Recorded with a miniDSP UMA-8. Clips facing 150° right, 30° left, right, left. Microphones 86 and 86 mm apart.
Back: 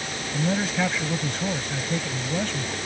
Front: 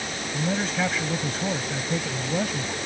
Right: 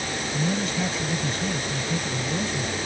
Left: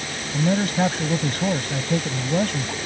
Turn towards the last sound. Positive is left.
turn(degrees=110)